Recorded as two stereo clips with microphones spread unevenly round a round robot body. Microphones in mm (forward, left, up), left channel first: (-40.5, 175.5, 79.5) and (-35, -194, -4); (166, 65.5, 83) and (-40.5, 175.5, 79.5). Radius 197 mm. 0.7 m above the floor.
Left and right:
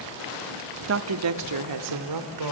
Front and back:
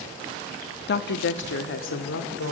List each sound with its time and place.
0.9 s a woman speaking: 55° right, 0.7 m; by 2.5 s 65° right, 2 m